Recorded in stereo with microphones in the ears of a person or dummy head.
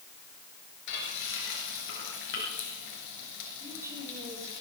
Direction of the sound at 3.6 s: 20° right (ahead or behind).